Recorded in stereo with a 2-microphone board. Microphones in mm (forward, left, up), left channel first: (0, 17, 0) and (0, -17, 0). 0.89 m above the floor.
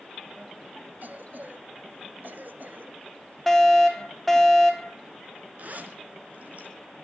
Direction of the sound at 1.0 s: 60° right (ahead or behind).